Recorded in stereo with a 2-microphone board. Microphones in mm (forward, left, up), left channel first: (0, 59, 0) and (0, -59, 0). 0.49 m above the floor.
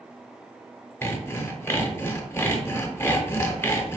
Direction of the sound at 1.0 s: 20° left (ahead or behind).